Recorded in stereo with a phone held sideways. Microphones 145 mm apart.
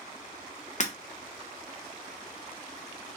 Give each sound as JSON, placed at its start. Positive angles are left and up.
{"t": 0.8, "sound": "breaking glass", "side_deg": 50, "distance_m": 0.6}